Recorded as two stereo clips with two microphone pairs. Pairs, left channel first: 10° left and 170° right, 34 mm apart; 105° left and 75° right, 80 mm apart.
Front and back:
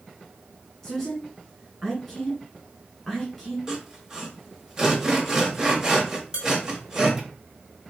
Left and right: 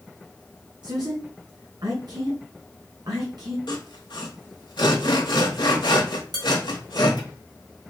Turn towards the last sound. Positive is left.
turn(degrees=-105)